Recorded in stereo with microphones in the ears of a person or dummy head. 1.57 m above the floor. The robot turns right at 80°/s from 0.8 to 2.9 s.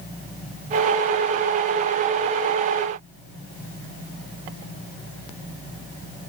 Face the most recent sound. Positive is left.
No sound to turn to.